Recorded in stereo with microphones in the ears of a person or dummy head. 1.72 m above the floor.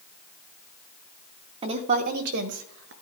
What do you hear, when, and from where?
1.6 s a woman speaking: 30° right (ahead or behind), 1.3 m; by 2.9 s 70° right (ahead or behind), 1.9 m